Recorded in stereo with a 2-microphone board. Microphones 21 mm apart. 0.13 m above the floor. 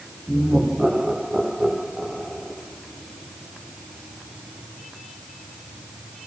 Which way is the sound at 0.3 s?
50° right (ahead or behind).